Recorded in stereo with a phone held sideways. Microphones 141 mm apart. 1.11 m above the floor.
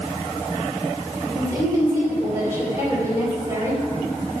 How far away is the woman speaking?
About 5 m.